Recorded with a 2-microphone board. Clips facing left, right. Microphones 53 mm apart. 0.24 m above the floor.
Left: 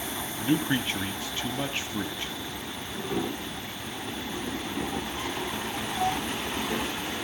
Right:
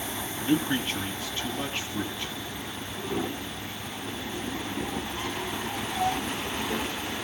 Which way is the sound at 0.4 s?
20° left (ahead or behind).